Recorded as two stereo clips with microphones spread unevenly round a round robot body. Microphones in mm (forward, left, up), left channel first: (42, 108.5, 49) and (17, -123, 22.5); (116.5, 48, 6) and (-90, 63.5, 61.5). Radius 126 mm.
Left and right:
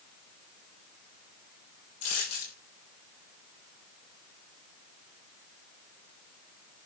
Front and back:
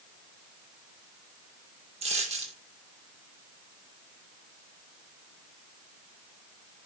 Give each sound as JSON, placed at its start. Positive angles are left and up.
{"t": 2.0, "sound": "a dropped coin", "azimuth_deg": 120, "distance_m": 6.5}